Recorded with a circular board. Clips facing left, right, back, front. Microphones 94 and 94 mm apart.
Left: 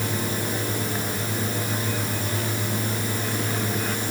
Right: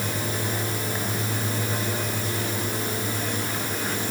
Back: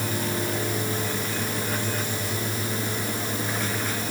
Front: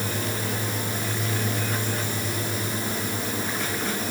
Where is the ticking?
No ticking in this recording.